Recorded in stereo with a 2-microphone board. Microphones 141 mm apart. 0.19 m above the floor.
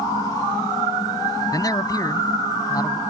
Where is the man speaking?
25° left (ahead or behind).